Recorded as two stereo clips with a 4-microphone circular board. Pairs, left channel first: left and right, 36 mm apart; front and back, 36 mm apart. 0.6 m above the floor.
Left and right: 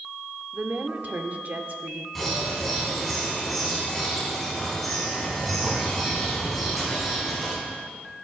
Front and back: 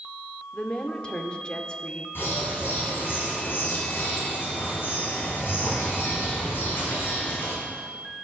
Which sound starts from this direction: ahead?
A bird, at 2.1 s.